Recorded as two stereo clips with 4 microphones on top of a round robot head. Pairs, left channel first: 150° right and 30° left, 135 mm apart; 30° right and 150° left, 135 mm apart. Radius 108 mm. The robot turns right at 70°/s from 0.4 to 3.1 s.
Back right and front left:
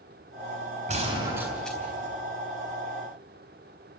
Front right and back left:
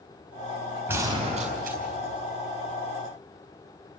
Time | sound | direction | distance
0.9 | a gunshot | 70° left | 4 m